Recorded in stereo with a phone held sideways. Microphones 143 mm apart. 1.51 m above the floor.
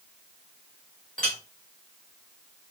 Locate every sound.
1.2 s a clink: 10° left (ahead or behind), 1.3 m